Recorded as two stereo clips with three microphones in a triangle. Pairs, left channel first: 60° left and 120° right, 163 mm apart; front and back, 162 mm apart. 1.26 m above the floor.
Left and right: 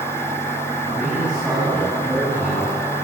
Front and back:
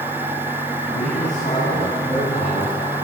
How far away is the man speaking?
About 9 m.